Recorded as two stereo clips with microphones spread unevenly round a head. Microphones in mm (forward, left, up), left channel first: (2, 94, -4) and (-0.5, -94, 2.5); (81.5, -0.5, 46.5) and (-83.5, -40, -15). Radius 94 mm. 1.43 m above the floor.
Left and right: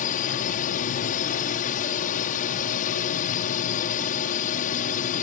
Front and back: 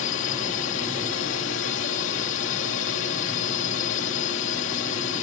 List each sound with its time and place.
0.0 s a drone: 40° left